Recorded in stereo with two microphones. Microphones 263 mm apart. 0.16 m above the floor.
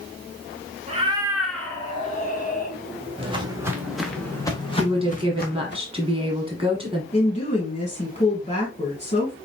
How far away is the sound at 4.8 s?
About 1.3 m.